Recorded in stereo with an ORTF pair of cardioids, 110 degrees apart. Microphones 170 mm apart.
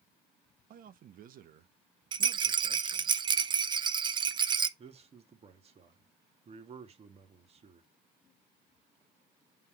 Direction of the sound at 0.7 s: 55° right.